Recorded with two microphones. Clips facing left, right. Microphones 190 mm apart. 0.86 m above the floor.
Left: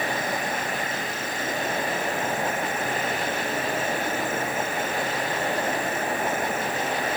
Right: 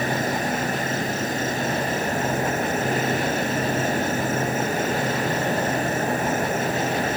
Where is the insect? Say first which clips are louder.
Right 4 dB; 40° right (ahead or behind).